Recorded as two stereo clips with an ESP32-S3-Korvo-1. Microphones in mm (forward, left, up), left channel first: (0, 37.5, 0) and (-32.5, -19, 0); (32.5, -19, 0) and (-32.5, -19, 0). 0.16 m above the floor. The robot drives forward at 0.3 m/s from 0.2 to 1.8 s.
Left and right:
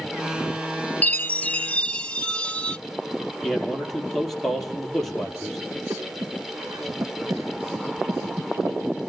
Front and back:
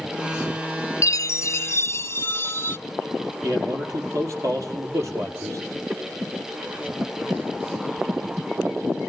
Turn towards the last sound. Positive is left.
turn(degrees=-125)